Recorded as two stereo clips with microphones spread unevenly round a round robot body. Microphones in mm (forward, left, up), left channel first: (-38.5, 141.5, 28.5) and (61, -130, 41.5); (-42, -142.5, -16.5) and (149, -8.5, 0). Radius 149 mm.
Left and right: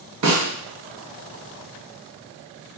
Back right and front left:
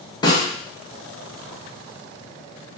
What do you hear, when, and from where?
0.2 s a snare drum: 80° right, 0.9 m